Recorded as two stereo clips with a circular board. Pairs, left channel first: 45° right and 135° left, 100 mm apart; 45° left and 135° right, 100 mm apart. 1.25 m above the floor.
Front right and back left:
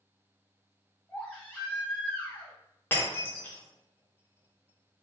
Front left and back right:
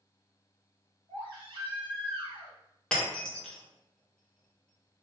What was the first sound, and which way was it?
A baby crying, 115° right.